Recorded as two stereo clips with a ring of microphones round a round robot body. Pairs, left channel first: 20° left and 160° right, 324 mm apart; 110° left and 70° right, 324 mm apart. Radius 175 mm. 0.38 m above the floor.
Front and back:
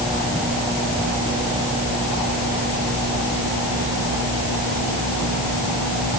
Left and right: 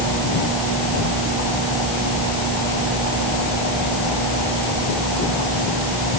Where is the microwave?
I don't hear a microwave.